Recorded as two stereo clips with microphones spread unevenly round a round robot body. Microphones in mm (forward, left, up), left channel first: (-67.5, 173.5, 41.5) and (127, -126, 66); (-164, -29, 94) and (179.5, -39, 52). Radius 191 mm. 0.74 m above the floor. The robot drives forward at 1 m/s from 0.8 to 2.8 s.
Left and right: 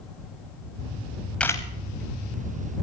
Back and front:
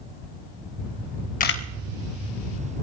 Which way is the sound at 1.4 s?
145° right.